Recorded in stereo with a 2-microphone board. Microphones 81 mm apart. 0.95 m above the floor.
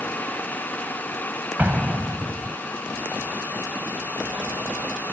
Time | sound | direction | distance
1.6 | an explosion | 20° right (ahead or behind) | ?